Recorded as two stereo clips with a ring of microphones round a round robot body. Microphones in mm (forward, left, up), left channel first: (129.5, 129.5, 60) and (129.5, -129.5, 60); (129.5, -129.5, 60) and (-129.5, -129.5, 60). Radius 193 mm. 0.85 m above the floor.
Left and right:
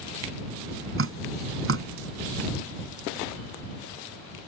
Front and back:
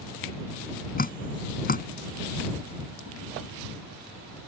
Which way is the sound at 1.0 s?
55° right.